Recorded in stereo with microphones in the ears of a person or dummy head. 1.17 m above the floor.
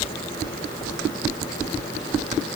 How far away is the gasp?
No gasp in this recording.